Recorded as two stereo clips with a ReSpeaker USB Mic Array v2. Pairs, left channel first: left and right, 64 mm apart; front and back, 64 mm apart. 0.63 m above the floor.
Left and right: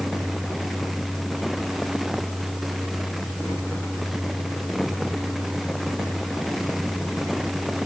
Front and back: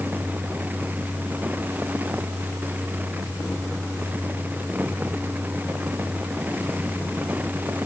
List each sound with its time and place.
Only background noise.